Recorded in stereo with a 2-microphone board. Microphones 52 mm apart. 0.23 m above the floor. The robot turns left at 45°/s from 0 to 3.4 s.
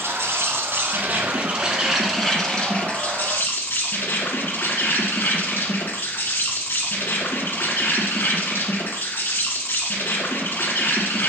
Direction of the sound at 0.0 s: 85° right.